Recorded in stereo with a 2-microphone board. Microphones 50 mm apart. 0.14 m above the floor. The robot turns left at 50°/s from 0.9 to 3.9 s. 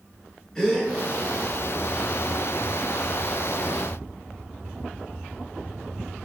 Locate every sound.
0.6 s a gasp: 10° left (ahead or behind), 0.9 m